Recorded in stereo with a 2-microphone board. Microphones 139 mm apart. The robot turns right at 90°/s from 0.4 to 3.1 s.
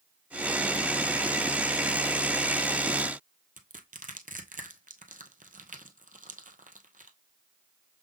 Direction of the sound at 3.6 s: 70° right (ahead or behind).